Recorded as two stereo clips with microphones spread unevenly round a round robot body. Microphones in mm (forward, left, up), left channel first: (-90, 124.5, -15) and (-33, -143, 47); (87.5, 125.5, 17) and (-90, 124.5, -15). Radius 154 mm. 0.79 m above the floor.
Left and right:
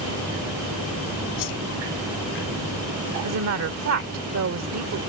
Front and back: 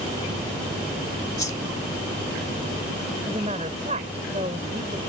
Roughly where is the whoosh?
Ahead left.